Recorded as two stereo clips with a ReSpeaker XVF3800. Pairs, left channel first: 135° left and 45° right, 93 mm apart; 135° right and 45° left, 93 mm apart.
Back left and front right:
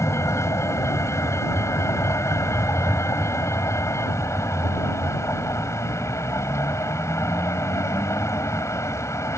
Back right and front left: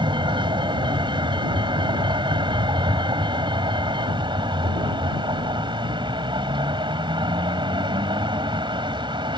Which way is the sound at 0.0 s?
75° left.